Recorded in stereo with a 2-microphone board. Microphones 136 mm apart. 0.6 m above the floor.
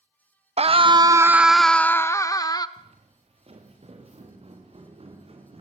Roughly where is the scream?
Right.